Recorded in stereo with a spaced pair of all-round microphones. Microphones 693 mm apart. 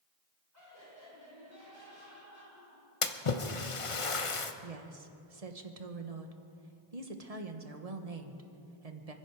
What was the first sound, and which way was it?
Laughter, 25° right (ahead or behind).